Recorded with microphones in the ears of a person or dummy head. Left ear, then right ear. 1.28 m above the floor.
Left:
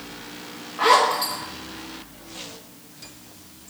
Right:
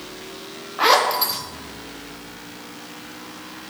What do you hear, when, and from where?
0.8 s a zipper: 20° right (ahead or behind), 0.7 m